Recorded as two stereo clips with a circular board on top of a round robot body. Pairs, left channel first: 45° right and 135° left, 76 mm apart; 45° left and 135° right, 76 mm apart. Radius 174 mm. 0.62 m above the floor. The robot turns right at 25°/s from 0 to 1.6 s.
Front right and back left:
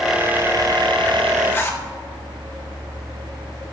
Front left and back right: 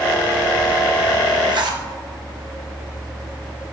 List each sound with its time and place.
1.5 s a zipper: 110° right, 1.2 m; by 1.8 s 105° right, 1.2 m